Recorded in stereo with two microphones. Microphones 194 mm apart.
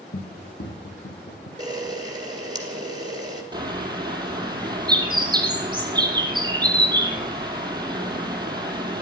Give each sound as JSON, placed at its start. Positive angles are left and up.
{"t": 0.1, "sound": "running footsteps", "side_deg": 85, "distance_m": 1.9}
{"t": 1.6, "sound": "a camera shutter", "side_deg": -20, "distance_m": 2.5}
{"t": 3.5, "sound": "a bird", "side_deg": -25, "distance_m": 2.5}